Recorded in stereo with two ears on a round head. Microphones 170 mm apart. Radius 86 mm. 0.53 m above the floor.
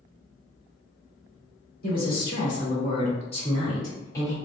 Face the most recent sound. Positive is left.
turn(degrees=10)  # may be behind; listen again after turning